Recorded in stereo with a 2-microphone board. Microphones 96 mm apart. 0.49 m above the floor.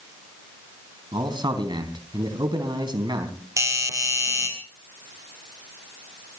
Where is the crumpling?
No crumpling in this recording.